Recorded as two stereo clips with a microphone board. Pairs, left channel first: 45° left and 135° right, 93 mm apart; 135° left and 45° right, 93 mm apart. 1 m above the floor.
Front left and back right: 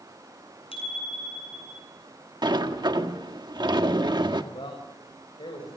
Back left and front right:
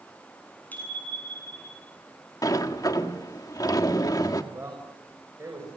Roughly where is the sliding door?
Behind.